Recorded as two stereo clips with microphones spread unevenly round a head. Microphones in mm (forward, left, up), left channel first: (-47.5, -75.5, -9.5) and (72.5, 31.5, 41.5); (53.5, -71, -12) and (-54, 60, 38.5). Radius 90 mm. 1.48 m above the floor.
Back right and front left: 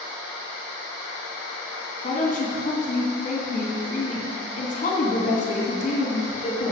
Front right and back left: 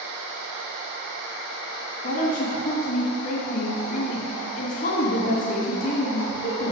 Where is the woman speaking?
95° right, 2.5 m.